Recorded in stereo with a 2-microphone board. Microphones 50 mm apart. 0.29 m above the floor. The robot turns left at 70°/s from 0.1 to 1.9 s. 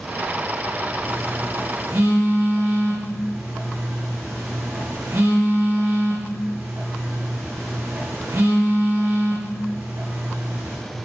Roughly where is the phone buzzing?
Right.